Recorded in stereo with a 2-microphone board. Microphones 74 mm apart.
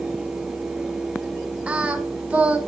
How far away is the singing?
About 1.9 m.